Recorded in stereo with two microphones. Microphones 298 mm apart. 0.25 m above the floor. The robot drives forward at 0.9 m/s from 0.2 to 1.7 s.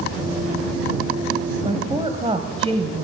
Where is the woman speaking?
20° right (ahead or behind), 1.1 m.